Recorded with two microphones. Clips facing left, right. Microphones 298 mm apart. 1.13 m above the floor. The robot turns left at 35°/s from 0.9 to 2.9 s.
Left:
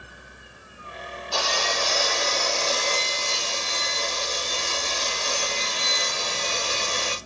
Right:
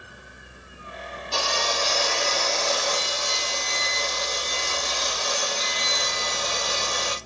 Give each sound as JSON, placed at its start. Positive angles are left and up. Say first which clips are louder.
{"t": 1.3, "sound": "sawing", "louder": "even", "azimuth_deg": -155, "distance_m": 2.5}